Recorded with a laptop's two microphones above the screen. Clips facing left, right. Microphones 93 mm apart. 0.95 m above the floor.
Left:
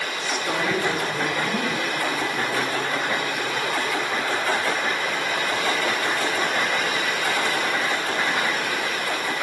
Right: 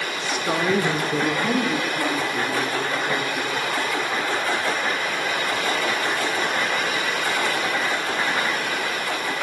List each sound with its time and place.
0.2 s a woman speaking: 5° left (ahead or behind), 0.7 m; by 4.4 s 80° right, 4 m